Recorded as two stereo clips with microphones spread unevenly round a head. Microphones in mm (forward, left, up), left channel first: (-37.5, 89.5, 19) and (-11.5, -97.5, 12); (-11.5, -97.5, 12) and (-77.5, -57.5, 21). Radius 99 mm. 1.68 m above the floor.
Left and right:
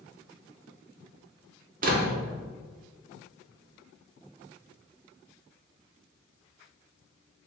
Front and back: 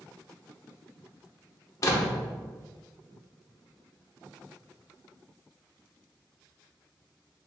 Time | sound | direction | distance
1.8 | a door slam | 60° right | 0.7 m